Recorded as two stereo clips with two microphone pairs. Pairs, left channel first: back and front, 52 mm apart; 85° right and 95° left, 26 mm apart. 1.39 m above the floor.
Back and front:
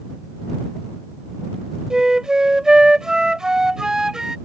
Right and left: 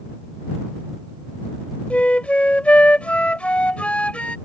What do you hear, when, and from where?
1.9 s a flute: 80° right